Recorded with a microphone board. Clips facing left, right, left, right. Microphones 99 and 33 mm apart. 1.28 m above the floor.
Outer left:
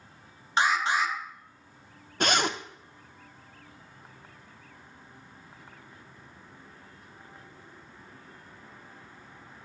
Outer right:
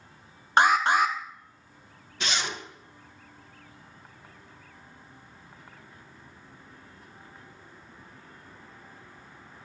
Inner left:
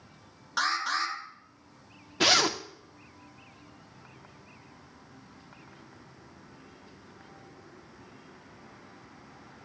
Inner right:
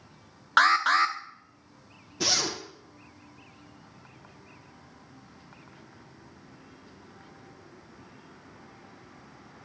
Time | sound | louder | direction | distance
0.6 | an alarm | outer right 5 dB, inner right 8 dB | 55° right (ahead or behind) | 0.6 m
2.2 | a zipper | outer left 6 dB, inner left 5 dB | 50° left (ahead or behind) | 0.5 m